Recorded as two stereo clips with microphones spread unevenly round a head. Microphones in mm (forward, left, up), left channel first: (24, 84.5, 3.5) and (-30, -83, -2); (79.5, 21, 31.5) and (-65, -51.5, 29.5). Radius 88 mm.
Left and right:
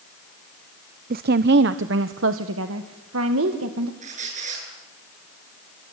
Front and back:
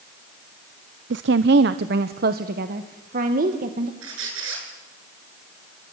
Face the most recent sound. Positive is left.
turn(degrees=-160)